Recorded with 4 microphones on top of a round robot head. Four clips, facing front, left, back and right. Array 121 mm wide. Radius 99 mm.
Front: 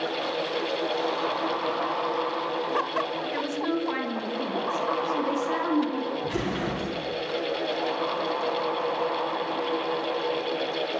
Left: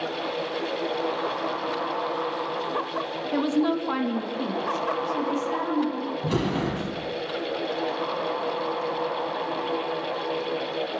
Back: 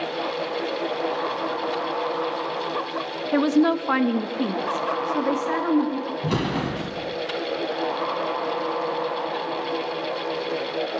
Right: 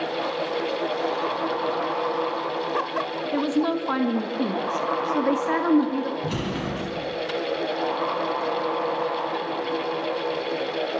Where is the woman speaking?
Straight behind, 1.9 m; by 6.1 s 105° right, 3 m.